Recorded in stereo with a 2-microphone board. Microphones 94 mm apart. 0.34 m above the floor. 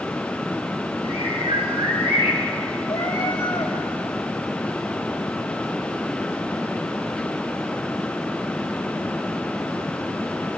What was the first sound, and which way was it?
A bird, 75° right (ahead or behind).